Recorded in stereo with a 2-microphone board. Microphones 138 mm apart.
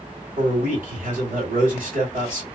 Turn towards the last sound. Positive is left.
turn(degrees=-80)